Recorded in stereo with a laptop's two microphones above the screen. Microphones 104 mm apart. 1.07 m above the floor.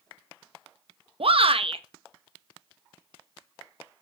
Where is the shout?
65° right (ahead or behind), 1.1 m.